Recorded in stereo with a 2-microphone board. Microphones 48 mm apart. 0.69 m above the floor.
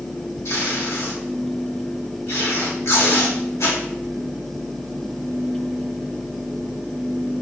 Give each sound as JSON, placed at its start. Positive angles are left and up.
{"t": 0.5, "sound": "tape being pulled", "side_deg": 75, "distance_m": 1.3}